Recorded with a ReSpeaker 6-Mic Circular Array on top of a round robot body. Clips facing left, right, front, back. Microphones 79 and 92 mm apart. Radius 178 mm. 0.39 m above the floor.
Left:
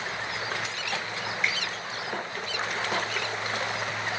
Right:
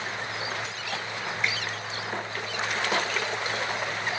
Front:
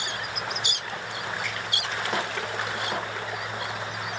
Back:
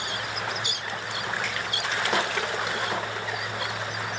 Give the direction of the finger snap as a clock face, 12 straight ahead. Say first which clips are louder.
Even, back 2 dB; 6 o'clock.